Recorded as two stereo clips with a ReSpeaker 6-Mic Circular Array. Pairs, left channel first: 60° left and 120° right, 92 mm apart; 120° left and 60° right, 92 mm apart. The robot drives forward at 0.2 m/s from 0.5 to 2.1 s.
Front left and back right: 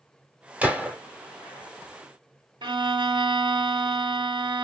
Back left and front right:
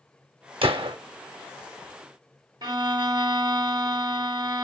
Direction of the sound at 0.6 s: 45° right.